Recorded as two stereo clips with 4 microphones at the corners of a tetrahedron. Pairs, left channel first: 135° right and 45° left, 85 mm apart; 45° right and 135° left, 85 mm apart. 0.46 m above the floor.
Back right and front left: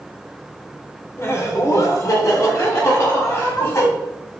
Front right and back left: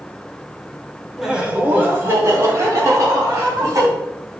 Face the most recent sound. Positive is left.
turn(degrees=175)